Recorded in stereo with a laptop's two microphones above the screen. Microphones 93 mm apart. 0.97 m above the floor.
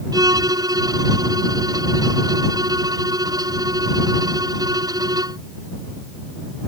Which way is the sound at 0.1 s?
45° right (ahead or behind).